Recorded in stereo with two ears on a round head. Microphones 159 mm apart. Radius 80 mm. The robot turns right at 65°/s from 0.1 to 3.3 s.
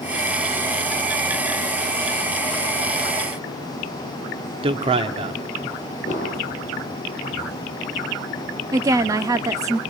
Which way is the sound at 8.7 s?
20° right (ahead or behind).